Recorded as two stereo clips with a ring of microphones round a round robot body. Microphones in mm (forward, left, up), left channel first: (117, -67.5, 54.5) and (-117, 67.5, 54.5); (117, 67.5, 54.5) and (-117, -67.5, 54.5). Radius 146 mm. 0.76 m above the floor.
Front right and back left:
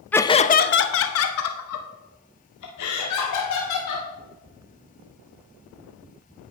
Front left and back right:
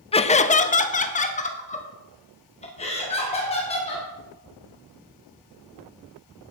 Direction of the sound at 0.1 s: 45° left.